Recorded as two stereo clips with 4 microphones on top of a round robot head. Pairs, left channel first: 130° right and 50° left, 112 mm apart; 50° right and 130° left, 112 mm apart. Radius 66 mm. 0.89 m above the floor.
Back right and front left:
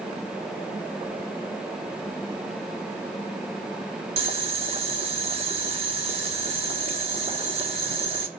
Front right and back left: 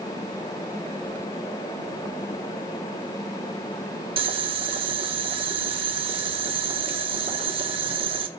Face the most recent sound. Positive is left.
turn(degrees=90)